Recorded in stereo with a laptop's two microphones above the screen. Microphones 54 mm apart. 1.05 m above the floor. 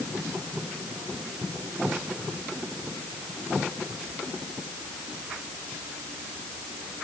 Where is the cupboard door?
No cupboard door in this recording.